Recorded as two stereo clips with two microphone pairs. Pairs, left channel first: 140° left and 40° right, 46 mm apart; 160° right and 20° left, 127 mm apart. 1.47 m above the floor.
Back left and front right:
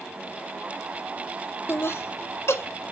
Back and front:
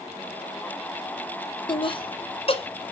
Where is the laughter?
155° left, 0.6 m; by 2.9 s 160° left, 1.2 m.